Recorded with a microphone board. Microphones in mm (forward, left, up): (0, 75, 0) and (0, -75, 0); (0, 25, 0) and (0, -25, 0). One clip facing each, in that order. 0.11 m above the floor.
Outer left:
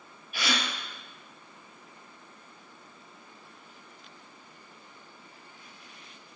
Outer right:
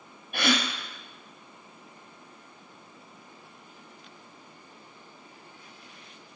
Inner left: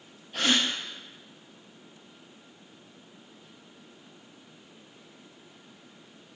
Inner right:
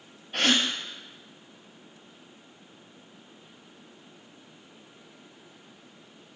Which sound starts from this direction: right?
A gasp, at 0.3 s.